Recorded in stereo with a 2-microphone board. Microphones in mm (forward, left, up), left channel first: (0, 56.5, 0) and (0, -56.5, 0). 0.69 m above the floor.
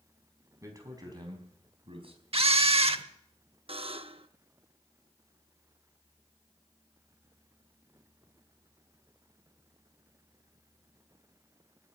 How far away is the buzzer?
About 0.6 m.